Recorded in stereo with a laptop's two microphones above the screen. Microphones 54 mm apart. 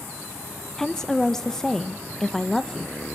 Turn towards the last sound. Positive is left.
turn(degrees=10)  # may be behind; listen again after turning